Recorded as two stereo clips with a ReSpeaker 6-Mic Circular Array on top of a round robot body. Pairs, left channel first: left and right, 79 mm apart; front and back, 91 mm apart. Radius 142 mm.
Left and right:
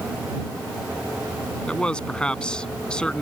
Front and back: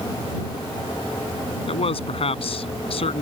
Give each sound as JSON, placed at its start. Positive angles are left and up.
{"t": 1.7, "sound": "a man speaking", "azimuth_deg": 10}